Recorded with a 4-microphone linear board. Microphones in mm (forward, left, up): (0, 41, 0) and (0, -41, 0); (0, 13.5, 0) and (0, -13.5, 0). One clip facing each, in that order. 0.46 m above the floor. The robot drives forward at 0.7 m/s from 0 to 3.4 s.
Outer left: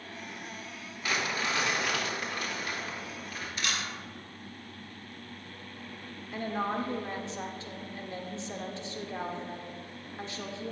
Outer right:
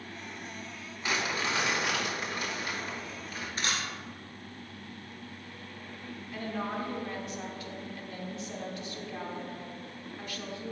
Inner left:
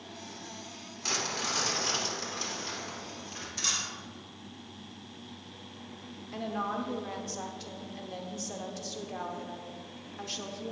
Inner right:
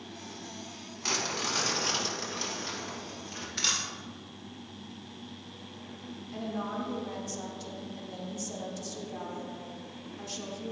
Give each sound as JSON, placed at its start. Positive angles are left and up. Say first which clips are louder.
{"t": 1.0, "sound": "crumpling", "louder": "even, inner right 1 dB", "side_deg": -20, "distance_m": 3.0}
{"t": 3.6, "sound": "a camera shutter", "louder": "outer right 1 dB, inner right 2 dB", "side_deg": -35, "distance_m": 1.7}
{"t": 6.3, "sound": "a woman speaking", "louder": "outer left 3 dB, inner left 2 dB", "side_deg": 25, "distance_m": 0.8}